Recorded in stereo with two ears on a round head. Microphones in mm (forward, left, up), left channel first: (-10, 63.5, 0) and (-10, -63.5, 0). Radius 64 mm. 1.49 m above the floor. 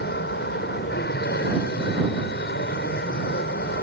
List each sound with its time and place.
0.0 s an aircraft: 80° left